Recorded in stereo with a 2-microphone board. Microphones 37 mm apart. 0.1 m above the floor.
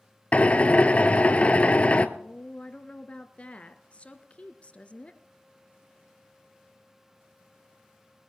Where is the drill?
35° left (ahead or behind), 0.8 m.